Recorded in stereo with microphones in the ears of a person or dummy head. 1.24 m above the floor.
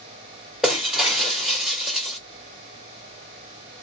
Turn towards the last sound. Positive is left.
turn(degrees=0)  # may be behind; listen again after turning